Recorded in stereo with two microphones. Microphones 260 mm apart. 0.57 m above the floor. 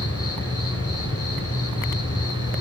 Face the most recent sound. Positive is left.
turn(degrees=65)  # may be behind; listen again after turning